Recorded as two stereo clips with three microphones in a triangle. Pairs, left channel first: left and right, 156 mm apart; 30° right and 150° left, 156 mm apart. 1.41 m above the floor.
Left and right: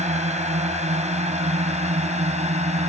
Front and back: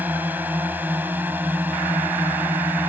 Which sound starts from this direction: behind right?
A drone, at 0.0 s.